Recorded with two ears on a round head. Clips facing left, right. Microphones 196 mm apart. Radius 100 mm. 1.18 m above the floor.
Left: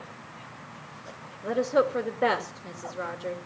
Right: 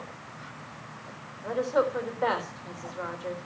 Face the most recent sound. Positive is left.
turn(degrees=35)  # may be behind; listen again after turning